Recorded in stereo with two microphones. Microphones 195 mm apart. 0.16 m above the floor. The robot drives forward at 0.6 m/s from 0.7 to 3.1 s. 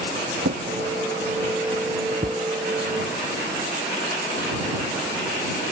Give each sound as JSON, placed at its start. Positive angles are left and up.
{"t": 0.4, "sound": "a drawer", "side_deg": -70}